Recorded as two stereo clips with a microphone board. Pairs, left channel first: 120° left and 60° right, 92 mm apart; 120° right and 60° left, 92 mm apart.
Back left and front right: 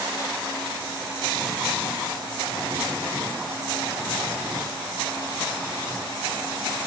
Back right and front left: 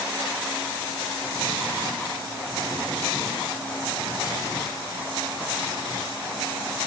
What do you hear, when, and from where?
Only background noise.